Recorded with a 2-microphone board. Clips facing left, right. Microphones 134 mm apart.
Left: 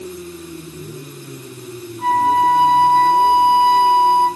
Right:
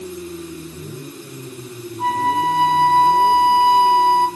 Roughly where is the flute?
Right.